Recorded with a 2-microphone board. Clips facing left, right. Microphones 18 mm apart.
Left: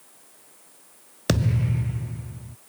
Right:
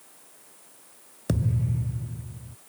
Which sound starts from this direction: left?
A thud, at 1.3 s.